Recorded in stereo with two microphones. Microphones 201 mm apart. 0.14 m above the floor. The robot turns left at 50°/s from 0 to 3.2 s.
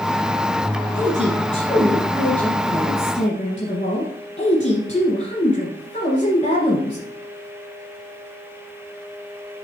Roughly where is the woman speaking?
Behind right.